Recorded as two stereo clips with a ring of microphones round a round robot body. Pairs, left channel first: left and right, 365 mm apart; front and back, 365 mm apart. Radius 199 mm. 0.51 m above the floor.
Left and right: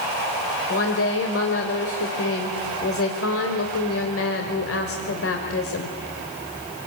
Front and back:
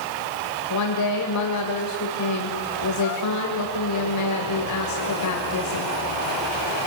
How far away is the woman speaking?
About 2.5 m.